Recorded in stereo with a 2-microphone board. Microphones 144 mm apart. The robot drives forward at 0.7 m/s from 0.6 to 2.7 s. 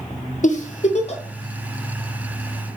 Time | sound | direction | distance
0.4 | a giggle | 60° left (ahead or behind) | 0.8 m